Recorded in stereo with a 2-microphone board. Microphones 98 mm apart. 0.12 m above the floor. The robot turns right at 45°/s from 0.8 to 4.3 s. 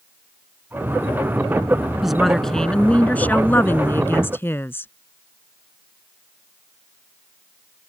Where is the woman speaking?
5° right (ahead or behind); by 4.9 s 25° left (ahead or behind).